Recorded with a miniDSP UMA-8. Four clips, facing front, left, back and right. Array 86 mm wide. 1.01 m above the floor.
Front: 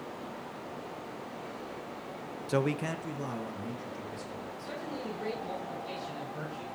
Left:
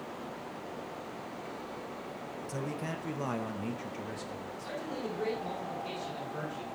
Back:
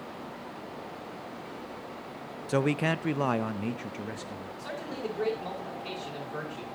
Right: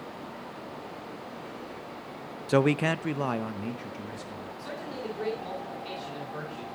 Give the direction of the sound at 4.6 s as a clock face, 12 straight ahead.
6 o'clock.